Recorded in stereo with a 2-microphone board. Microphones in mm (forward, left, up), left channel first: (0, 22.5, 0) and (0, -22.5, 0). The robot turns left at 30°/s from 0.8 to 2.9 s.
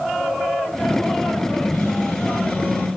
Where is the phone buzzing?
80° left, 2 m; by 2.9 s 40° left, 2 m.